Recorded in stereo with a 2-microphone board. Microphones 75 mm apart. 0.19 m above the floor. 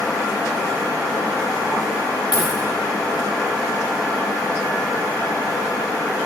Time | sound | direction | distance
2.3 | a dropped coin | 80° left | 4 m